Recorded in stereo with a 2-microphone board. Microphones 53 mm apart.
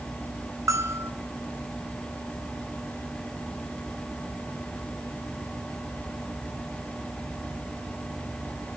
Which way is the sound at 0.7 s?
75° right (ahead or behind).